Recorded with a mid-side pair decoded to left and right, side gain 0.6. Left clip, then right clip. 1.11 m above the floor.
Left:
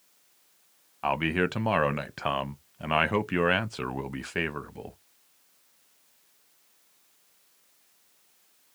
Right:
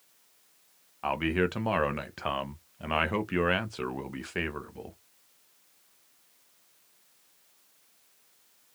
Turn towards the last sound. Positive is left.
turn(degrees=15)